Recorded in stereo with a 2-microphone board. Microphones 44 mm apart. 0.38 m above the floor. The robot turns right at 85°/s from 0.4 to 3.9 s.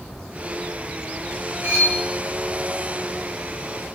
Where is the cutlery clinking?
65° right (ahead or behind), 1.9 m; by 2.0 s 40° right (ahead or behind), 1.9 m.